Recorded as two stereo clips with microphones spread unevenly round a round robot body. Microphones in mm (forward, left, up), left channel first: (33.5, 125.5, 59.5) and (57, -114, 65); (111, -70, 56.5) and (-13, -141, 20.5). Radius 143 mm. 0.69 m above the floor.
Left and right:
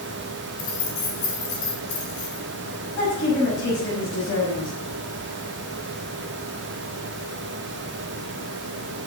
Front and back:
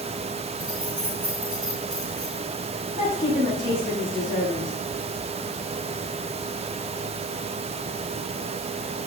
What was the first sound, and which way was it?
Keys jangling, 115° left.